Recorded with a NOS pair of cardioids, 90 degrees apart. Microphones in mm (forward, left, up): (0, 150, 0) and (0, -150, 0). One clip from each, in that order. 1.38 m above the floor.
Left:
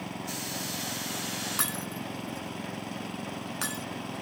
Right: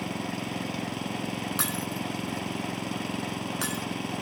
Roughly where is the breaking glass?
Ahead.